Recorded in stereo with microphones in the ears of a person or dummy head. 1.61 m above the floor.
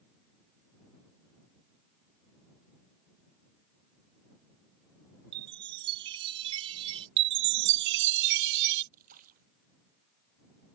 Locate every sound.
5.3 s a chime: 30° right (ahead or behind)
7.2 s a chime: 65° right (ahead or behind)
8.9 s a splash: 45° right (ahead or behind)